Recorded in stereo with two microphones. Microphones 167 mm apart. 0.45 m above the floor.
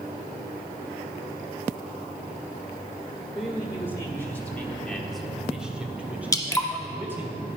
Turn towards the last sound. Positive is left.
turn(degrees=20)  # may be behind; listen again after turning